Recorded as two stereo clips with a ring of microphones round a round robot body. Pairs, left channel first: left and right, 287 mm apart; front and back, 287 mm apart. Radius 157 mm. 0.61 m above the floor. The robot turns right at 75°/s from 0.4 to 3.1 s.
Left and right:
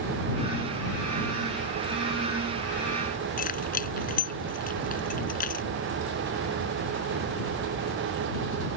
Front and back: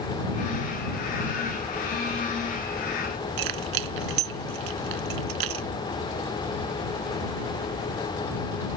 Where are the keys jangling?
155° left.